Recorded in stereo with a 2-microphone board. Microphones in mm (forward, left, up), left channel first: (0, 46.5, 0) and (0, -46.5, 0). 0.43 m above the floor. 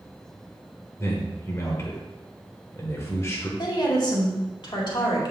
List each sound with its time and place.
1.0 s a man speaking: 30° left (ahead or behind), 1.2 m
3.6 s a woman speaking: 55° left (ahead or behind), 1.8 m